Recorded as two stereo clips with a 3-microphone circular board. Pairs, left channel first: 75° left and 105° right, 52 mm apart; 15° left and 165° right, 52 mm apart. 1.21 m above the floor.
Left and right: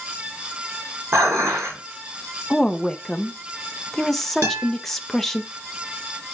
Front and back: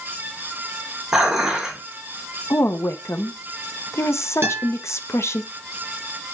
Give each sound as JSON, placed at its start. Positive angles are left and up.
{"t": 1.1, "sound": "dishes clattering", "azimuth_deg": -85, "distance_m": 3.0}
{"t": 2.5, "sound": "a woman speaking", "azimuth_deg": -10, "distance_m": 0.8}
{"t": 4.4, "sound": "a guitar", "azimuth_deg": -125, "distance_m": 5.0}